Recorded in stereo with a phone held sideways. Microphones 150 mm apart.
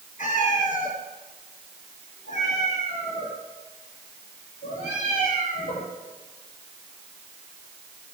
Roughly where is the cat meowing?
Left.